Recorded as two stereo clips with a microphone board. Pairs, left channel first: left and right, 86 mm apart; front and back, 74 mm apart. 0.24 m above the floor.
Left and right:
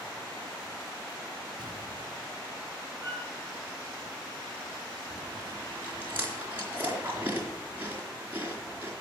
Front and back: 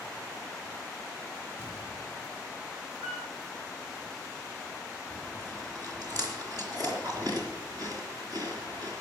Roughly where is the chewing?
Behind.